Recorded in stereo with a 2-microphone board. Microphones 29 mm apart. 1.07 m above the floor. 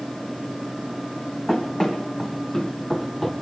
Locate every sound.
1.5 s running footsteps: 25° left (ahead or behind), 2.5 m; by 3.3 s 10° left (ahead or behind), 1.3 m